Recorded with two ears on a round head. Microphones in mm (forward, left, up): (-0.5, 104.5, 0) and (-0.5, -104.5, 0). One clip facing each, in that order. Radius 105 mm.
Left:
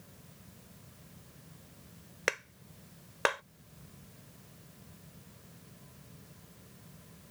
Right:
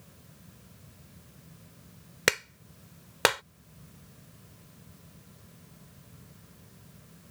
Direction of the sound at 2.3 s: 55° right (ahead or behind).